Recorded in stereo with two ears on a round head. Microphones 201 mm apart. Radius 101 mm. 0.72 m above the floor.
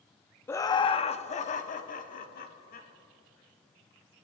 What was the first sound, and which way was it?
Laughter, 10° left (ahead or behind).